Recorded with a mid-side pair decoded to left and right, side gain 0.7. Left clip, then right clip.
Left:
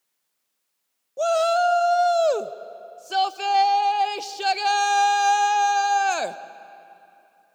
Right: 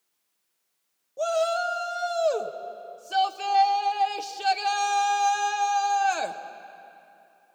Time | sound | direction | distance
1.2 | a shout | 25° left | 1.0 m